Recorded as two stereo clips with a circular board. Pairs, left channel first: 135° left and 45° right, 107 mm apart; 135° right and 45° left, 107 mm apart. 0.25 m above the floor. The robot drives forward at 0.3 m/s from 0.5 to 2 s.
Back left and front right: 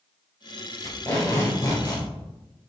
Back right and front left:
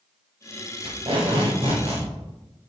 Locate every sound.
0.8 s tape being pulled: 65° left, 4 m; by 2.1 s 70° left, 4 m